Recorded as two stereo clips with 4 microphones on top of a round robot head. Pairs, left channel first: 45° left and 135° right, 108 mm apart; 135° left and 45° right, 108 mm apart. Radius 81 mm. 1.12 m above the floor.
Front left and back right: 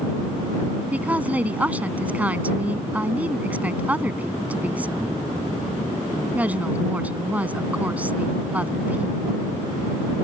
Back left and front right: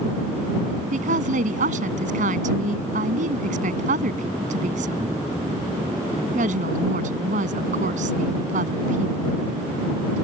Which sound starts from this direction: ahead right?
A woman speaking, at 0.9 s.